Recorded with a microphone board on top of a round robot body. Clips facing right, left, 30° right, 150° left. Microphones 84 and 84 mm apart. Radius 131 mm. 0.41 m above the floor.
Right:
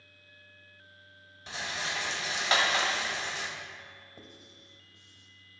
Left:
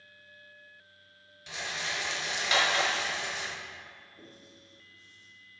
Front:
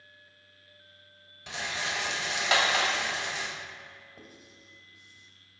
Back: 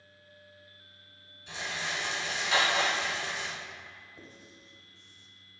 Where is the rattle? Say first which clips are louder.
Right 1 dB, front 2 dB; 35° right, 1.1 m.